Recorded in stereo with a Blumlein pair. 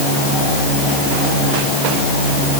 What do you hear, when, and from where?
Only background noise.